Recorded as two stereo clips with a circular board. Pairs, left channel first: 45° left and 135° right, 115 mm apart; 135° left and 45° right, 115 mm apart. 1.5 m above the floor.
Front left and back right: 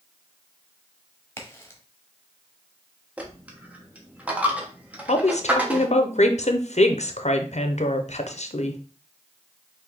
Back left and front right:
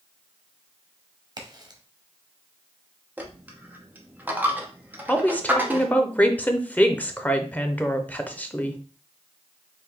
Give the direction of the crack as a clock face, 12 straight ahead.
12 o'clock.